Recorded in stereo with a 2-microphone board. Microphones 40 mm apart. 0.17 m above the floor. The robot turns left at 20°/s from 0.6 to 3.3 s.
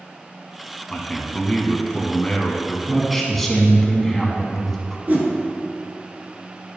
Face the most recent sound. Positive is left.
turn(degrees=-45)  # may be behind; listen again after turning